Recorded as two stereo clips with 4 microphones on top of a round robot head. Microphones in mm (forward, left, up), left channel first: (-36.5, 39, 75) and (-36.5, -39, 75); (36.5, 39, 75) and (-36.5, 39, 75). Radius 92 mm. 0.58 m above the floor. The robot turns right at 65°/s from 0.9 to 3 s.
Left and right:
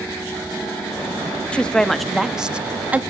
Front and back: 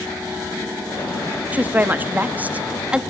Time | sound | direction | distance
1.5 | a woman speaking | 145° left | 0.7 m